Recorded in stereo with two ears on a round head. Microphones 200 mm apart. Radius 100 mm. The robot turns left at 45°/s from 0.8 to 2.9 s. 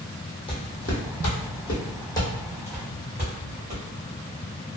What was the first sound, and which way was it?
Footsteps, 25° left (ahead or behind).